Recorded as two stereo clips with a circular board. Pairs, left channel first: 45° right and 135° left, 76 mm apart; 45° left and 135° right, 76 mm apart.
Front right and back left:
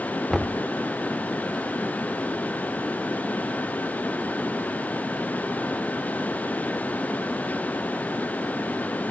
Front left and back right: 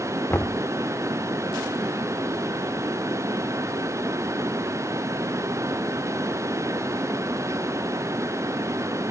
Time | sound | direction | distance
0.3 | knocking | 50° left | ?